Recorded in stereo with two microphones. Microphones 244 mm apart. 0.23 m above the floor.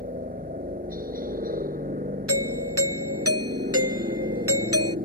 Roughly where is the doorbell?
Right.